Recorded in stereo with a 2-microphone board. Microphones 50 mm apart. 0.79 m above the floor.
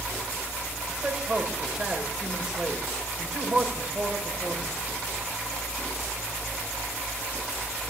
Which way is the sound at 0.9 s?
15° right (ahead or behind).